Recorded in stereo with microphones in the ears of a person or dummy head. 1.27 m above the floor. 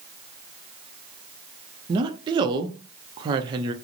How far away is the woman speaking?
About 0.5 m.